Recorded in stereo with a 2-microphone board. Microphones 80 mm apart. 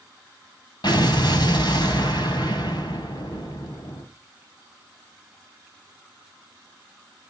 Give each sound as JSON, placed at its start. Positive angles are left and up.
{"t": 0.8, "sound": "an explosion", "side_deg": 65, "distance_m": 2.5}